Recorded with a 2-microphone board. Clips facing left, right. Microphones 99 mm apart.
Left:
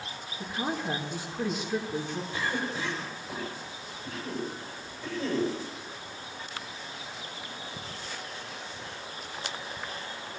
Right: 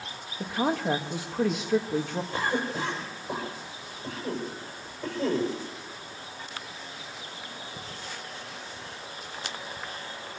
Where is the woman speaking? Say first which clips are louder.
Right 5 dB; 85° right, 2.5 m.